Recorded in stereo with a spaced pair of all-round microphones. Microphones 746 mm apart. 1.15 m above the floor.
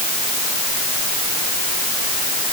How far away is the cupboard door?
No cupboard door in this recording.